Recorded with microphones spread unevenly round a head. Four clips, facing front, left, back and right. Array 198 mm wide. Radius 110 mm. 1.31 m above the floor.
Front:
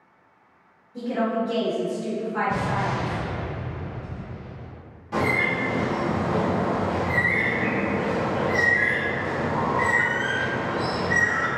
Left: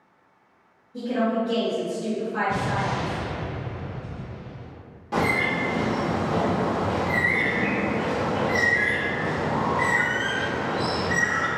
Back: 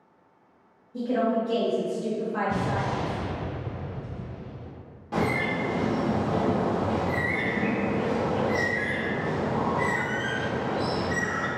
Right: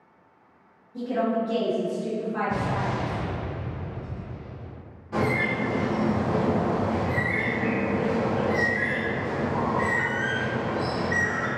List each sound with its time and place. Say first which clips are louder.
0.9 s a woman speaking: left 1 dB, even; 155° left, 1.0 m
2.5 s an explosion: left 1 dB, front 2 dB; 165° left, 1.1 m
5.1 s a bird: left 1 dB, front 2 dB; 120° left, 1.0 m